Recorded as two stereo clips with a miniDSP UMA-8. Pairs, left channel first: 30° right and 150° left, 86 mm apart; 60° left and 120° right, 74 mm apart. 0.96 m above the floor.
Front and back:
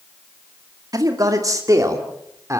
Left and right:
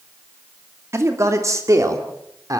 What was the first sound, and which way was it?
A man speaking, 170° right.